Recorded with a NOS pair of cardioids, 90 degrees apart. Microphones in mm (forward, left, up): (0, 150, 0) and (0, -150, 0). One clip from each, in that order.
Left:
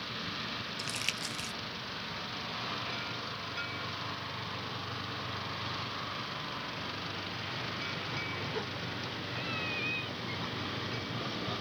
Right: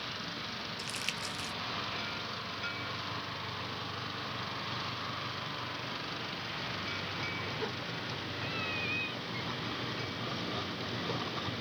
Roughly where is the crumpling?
Ahead.